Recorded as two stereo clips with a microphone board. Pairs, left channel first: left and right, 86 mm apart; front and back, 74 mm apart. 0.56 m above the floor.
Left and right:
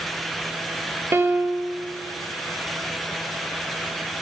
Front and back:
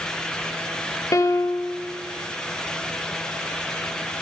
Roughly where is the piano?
Ahead right.